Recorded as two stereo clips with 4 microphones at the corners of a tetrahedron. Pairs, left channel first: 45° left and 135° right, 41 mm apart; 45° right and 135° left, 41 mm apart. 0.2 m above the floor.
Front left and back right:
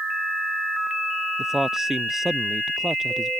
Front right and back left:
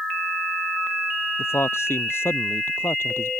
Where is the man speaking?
55° right.